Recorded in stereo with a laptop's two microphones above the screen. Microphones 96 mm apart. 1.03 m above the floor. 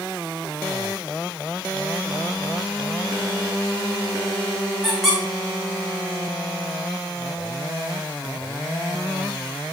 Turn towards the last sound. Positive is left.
turn(degrees=-5)  # may be behind; listen again after turning